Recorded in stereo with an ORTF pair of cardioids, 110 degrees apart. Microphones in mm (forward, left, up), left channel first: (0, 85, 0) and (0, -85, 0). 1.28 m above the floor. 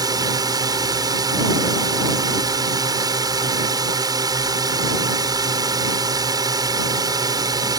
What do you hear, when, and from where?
0.0 s a drone: 25° right